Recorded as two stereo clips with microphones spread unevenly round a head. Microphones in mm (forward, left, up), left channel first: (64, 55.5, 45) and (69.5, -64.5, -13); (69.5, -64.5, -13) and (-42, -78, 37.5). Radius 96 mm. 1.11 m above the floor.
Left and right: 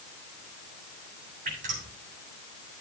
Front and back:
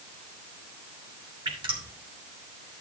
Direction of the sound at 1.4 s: 130° right.